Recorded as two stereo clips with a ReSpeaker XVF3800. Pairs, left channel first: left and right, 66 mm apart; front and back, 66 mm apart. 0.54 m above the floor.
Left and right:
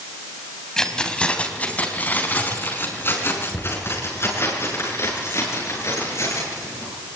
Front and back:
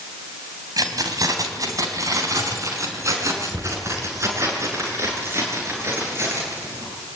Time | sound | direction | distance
0.8 | keys jangling | 170° left | 3 m